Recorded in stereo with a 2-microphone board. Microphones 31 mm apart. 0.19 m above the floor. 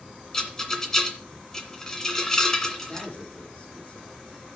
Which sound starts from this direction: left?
A man speaking, at 2.9 s.